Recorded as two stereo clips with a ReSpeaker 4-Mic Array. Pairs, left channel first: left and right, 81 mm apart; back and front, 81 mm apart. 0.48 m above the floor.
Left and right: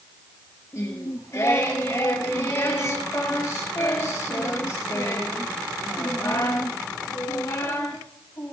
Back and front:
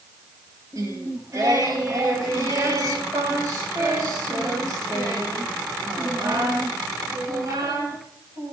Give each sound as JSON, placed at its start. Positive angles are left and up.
{"t": 0.7, "sound": "singing", "azimuth_deg": 40, "distance_m": 2.5}